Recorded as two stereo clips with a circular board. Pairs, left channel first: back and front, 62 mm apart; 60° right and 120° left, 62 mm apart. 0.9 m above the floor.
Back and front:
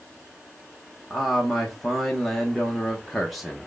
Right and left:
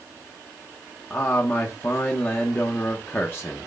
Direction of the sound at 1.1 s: 90° right.